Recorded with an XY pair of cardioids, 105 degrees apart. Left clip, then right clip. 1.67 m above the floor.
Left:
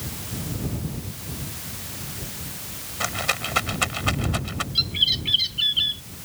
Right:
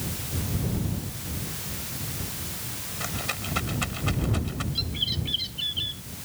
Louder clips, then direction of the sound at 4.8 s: Left 8 dB; 50° left.